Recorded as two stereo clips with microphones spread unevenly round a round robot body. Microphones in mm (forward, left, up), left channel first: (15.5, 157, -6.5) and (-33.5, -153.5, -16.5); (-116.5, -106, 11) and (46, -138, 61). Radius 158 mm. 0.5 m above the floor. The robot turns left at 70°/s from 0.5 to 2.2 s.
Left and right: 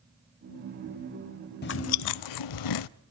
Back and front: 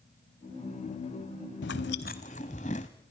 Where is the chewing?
140° left, 0.5 m; by 2.9 s 95° left, 0.5 m.